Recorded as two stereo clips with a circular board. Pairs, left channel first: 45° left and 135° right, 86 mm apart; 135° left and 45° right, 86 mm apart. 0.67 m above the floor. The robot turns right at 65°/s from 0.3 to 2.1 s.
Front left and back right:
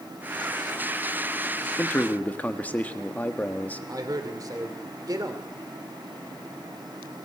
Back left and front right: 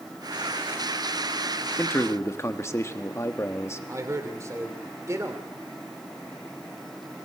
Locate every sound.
1.8 s a man speaking: 85° left, 1.4 m; by 3.8 s 105° left, 1.4 m
3.9 s a man speaking: 95° right, 2.5 m